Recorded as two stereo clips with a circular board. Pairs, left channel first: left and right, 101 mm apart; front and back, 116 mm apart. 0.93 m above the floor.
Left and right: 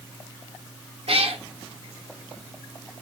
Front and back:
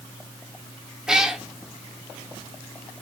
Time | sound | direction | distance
1.1 | a cat meowing | 95° right | 1.0 m